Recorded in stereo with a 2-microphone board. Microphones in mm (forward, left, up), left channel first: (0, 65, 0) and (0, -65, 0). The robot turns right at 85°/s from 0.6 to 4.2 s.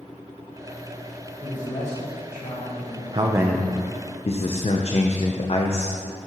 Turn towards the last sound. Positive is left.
turn(degrees=50)